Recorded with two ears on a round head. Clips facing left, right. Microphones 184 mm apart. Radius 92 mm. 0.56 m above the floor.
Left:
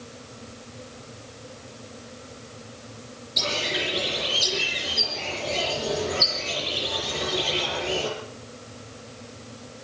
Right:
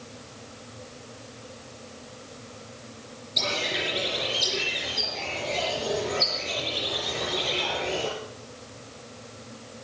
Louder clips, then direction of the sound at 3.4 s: Left 1 dB; 10° left (ahead or behind).